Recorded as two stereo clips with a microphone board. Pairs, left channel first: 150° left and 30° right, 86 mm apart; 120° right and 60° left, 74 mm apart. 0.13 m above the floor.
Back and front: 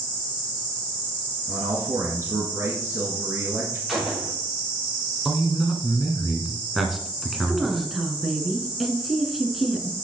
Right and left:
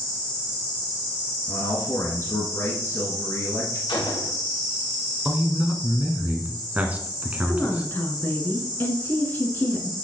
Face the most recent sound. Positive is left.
turn(degrees=-115)